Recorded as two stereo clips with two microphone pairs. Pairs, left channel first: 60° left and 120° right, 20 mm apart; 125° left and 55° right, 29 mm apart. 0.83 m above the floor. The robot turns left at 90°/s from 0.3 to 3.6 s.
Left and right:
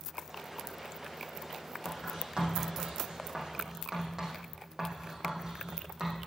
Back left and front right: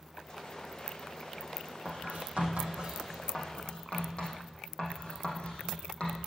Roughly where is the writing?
Ahead right.